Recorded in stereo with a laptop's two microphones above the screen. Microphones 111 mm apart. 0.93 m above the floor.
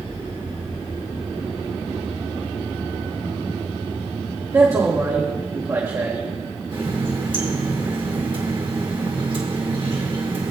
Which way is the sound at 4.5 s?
30° right (ahead or behind).